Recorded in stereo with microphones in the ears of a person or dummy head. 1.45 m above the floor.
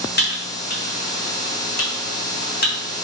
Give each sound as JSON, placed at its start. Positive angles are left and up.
{"t": 0.2, "sound": "typing on a keyboard", "side_deg": 60, "distance_m": 1.2}